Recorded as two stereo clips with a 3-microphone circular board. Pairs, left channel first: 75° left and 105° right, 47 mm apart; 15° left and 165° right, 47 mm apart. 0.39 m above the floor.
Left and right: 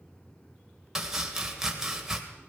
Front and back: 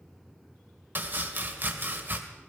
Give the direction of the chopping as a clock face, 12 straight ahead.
6 o'clock.